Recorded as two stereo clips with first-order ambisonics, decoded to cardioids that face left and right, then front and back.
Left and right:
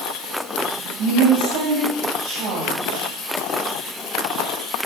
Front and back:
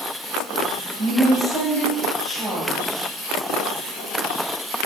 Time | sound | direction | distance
1.0 | a woman speaking | 90° right | 1.8 m